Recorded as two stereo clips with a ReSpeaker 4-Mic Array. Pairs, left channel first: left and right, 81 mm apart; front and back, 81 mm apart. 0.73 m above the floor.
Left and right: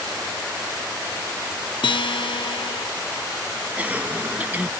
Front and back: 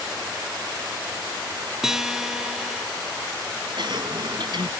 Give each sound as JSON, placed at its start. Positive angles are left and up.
{"t": 1.8, "sound": "a guitar", "azimuth_deg": 95}
{"t": 3.8, "sound": "a cough", "azimuth_deg": -160}